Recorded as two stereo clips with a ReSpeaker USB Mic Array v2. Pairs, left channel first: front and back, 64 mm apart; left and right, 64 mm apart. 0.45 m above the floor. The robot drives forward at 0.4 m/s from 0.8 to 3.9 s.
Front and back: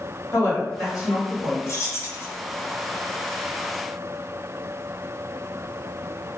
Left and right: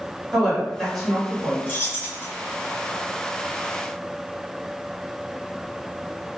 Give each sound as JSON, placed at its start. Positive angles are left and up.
{"t": 0.3, "sound": "a woman speaking", "azimuth_deg": -5, "distance_m": 1.7}
{"t": 1.7, "sound": "keys jangling", "azimuth_deg": 30, "distance_m": 1.3}